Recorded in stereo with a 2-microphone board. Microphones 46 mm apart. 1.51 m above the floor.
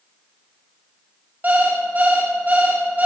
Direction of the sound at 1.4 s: 40° right (ahead or behind).